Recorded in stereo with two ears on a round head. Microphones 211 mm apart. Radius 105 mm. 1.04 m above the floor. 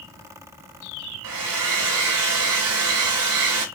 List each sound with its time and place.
1.2 s a hair dryer: 75° right (ahead or behind), 1.9 m